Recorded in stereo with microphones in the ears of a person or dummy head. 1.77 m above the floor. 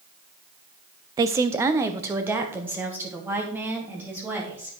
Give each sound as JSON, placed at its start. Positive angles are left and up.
{"t": 1.2, "sound": "a woman speaking", "side_deg": -20, "distance_m": 0.5}